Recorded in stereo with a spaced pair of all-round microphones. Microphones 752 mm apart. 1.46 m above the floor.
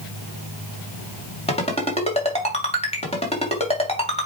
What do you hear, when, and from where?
1.5 s a ringtone: 10° left (ahead or behind), 2.5 m